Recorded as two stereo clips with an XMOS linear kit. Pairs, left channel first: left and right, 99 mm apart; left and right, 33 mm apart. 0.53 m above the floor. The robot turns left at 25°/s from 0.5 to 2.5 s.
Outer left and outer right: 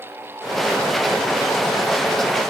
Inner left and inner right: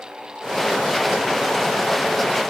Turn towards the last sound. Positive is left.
No sound to turn to.